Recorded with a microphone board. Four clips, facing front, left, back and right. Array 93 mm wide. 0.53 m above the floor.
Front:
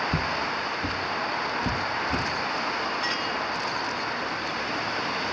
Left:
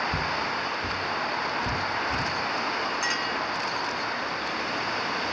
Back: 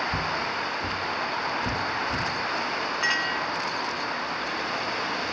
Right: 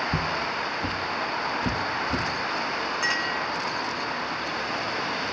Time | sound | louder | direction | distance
0.1 | footsteps | right 1 dB, front 1 dB | 40° right | 0.8 m
3.0 | a clink | right 1 dB, back 2 dB | 150° right | 0.7 m